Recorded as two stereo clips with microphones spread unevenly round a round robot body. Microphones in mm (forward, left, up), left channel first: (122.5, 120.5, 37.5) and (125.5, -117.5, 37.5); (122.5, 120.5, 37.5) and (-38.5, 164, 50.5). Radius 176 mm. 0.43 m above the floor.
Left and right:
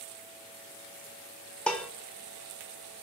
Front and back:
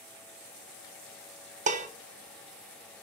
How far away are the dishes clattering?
About 0.6 m.